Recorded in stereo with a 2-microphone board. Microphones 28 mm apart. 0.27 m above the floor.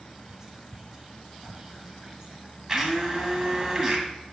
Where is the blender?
20° right (ahead or behind), 1.4 m.